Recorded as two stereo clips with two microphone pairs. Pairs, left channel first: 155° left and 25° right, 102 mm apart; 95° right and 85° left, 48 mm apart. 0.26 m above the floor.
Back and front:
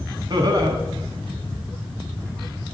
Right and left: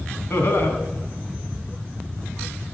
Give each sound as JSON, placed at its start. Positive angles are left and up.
{"t": 0.3, "sound": "laughter", "azimuth_deg": -65, "distance_m": 2.5}